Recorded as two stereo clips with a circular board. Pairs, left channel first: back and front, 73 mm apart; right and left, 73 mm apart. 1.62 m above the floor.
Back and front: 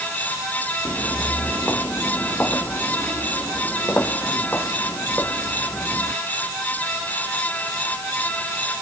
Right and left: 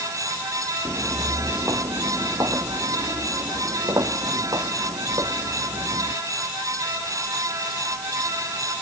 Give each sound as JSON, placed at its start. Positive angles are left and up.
{"t": 0.8, "sound": "footsteps", "azimuth_deg": 115}